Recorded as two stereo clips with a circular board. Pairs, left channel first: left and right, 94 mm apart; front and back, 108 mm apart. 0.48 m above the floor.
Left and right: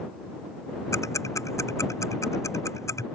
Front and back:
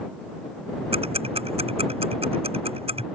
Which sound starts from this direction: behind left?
Ticking, at 0.9 s.